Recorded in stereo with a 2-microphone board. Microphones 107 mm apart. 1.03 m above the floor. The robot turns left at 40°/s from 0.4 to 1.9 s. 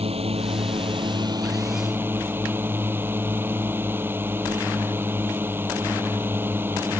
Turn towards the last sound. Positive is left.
turn(degrees=-160)